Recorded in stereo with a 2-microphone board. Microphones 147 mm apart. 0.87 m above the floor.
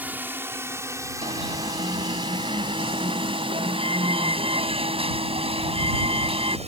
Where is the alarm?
40° right (ahead or behind).